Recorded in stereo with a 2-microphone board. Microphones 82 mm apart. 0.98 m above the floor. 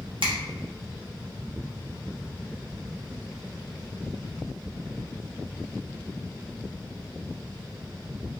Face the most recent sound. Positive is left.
turn(degrees=-90)